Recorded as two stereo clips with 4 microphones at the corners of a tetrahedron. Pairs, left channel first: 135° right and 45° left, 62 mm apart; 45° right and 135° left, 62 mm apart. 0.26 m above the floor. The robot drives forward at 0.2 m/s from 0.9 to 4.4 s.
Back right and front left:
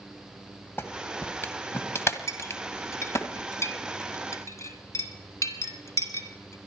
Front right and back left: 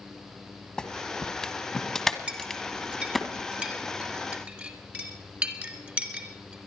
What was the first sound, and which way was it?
A clap, 110° right.